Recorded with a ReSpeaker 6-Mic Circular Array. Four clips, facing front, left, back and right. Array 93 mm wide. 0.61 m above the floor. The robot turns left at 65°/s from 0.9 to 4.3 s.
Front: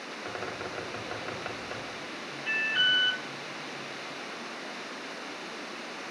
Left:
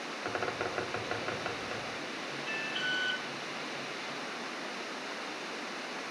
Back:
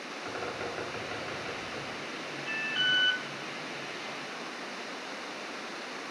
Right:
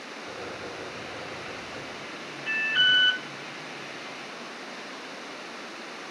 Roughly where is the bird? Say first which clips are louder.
Left 4 dB, back 1 dB; left.